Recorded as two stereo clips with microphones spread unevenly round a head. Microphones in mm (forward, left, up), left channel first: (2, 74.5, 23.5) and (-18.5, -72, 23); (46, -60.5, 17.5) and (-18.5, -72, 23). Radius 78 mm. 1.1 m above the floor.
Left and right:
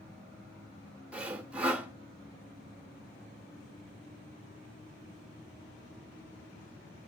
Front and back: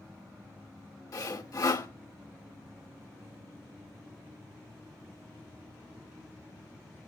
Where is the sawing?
15° right, 1.6 m.